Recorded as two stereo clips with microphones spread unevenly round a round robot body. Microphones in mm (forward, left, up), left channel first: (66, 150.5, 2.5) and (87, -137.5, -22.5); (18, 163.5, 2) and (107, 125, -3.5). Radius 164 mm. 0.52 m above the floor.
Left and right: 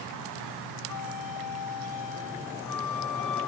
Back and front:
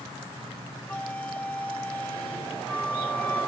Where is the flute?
80° left.